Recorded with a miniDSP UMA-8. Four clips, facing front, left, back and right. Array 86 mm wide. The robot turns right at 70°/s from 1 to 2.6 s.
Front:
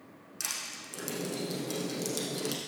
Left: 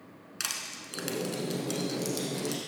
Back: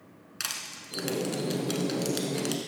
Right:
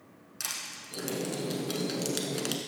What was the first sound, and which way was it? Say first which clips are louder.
Crushing: left 2 dB, back 2 dB; 145° left.